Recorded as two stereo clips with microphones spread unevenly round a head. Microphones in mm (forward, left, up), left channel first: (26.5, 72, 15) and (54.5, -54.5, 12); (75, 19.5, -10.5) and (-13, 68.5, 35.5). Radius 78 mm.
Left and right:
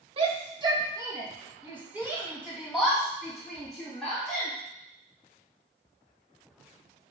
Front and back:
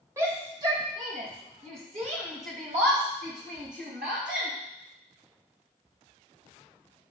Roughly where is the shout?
Behind right.